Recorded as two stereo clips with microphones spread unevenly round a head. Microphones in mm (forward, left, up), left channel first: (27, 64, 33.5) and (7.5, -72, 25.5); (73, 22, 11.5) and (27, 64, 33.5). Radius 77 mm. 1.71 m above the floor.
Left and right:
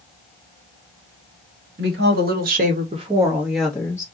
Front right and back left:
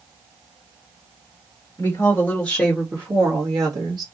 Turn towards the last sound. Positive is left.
turn(degrees=150)